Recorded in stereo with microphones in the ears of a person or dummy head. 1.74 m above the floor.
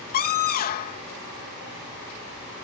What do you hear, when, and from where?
0.1 s a scream: 45° left (ahead or behind)